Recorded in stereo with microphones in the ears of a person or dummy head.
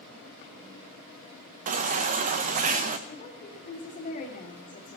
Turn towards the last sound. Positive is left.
turn(degrees=30)  # may be behind; listen again after turning